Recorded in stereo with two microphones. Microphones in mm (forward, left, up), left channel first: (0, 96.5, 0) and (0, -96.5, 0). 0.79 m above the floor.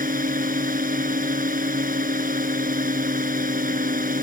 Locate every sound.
0.0 s a drone: 45° right (ahead or behind)